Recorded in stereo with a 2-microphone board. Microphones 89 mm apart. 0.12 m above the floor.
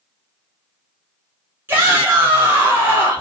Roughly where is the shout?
Right.